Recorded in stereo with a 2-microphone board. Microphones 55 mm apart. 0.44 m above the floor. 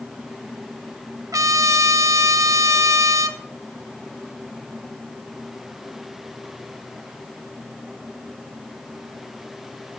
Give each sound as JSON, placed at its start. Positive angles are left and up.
{"t": 1.3, "sound": "a trumpet", "side_deg": -80, "distance_m": 0.8}